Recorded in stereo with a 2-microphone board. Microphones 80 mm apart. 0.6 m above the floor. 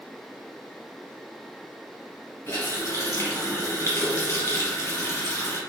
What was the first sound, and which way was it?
A running tap, 45° left (ahead or behind).